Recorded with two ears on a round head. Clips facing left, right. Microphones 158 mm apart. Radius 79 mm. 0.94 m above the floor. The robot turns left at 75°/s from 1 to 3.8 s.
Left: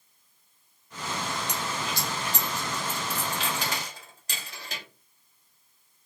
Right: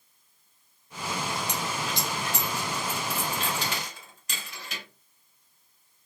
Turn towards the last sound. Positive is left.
turn(degrees=30)  # may be behind; listen again after turning